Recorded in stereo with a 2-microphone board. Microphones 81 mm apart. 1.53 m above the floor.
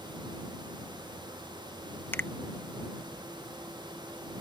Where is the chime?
I don't hear a chime.